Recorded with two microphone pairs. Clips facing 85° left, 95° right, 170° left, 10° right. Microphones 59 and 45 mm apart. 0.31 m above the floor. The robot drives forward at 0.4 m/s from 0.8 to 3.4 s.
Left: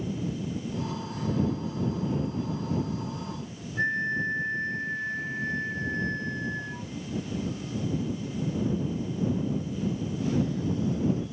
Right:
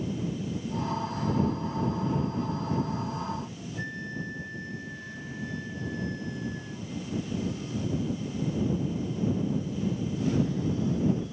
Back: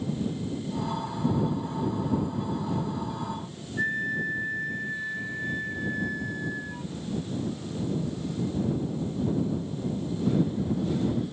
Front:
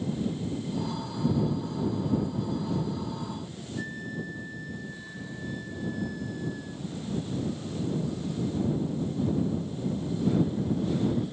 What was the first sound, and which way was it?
A flute, 130° left.